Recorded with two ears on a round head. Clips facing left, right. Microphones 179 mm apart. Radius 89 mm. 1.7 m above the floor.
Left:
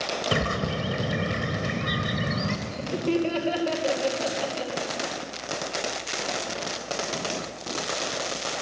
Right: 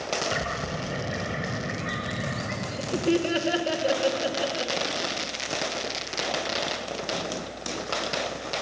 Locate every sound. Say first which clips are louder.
0.3 s a bird: left 4 dB; 50° left (ahead or behind), 2 m
2.7 s laughter: right 3 dB; 10° right (ahead or behind), 2.5 m